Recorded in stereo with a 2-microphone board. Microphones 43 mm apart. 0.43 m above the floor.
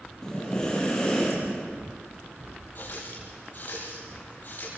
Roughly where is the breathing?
Centre.